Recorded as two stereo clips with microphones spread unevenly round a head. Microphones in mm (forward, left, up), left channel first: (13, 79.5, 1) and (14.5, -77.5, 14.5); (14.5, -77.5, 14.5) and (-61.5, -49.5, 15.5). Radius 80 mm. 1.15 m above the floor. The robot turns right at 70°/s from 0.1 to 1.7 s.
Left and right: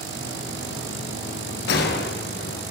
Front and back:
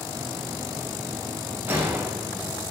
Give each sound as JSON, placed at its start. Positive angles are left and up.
{"t": 1.7, "sound": "a gunshot", "azimuth_deg": 85, "distance_m": 0.9}